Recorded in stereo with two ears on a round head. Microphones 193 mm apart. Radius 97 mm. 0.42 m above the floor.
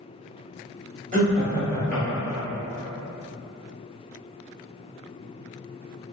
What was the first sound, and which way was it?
Laughter, 35° right (ahead or behind).